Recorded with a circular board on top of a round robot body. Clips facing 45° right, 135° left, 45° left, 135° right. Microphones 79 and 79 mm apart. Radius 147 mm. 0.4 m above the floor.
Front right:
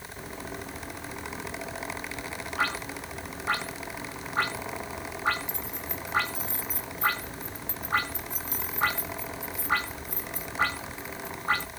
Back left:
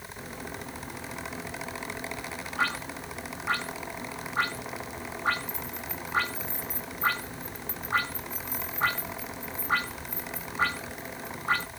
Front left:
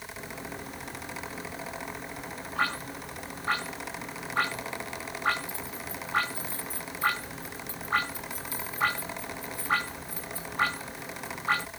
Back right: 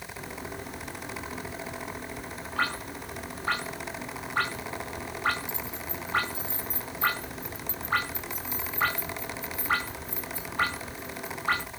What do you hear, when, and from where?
5.5 s keys jangling: 65° right